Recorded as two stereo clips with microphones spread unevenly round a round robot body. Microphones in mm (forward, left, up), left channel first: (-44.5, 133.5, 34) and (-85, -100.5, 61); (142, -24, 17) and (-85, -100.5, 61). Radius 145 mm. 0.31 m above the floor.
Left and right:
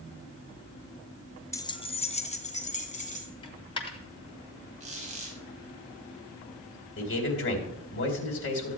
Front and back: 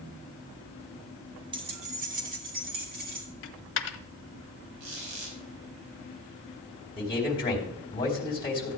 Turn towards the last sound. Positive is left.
turn(degrees=80)